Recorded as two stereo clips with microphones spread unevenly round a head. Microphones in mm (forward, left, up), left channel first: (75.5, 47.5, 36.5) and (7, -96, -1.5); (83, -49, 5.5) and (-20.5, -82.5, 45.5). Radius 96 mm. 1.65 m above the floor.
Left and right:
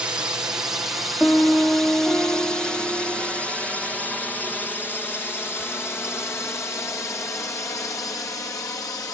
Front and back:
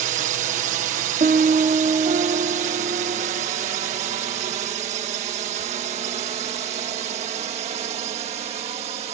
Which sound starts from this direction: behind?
A drone, at 0.0 s.